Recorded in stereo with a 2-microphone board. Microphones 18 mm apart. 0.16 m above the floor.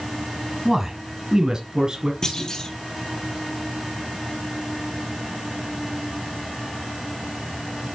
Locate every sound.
0.7 s a man speaking: 25° right (ahead or behind), 1.6 m; by 2.1 s 45° right (ahead or behind), 2.5 m
2.2 s a clunk: 30° left (ahead or behind), 2.5 m